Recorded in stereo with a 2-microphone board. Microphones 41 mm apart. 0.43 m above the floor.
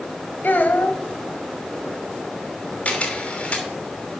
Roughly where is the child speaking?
Left.